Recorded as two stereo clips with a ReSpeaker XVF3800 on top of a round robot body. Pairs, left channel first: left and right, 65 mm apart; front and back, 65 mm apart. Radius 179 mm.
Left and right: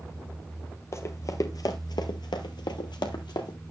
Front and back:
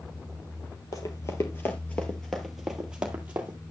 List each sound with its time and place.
0.9 s running footsteps: 40° left, 1.0 m; by 3.6 s 115° left, 1.3 m